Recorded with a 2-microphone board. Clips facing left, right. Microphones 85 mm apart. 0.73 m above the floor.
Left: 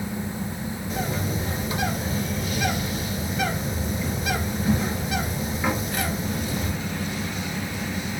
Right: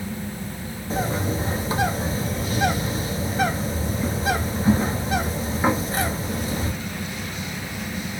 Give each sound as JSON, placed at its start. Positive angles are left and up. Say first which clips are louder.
{"t": 0.9, "sound": "a bird", "louder": "right 5 dB", "side_deg": -35, "distance_m": 1.1}